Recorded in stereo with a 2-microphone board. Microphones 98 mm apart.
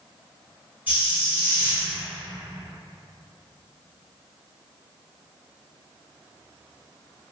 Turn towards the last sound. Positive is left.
turn(degrees=-20)  # may be behind; listen again after turning